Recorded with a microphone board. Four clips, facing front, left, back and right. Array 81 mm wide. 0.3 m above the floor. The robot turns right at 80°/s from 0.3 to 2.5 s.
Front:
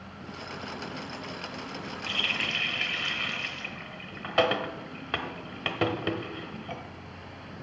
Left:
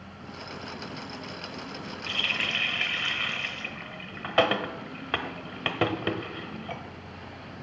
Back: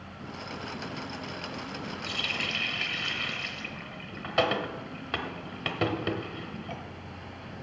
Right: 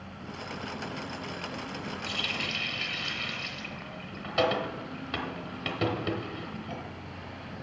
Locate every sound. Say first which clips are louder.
2.1 s a running tap: left 6 dB, front 4 dB; 40° left, 0.8 m; by 6.8 s 75° left, 0.8 m